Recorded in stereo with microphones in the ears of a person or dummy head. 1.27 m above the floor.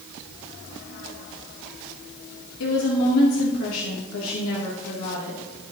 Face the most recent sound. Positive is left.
turn(degrees=75)  # may be behind; listen again after turning